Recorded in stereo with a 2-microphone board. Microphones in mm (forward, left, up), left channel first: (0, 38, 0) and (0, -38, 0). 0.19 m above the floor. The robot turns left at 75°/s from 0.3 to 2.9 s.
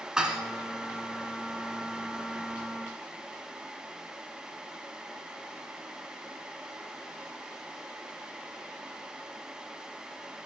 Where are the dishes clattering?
10° right (ahead or behind), 1.2 m; by 0.4 s 5° right (ahead or behind), 1.2 m.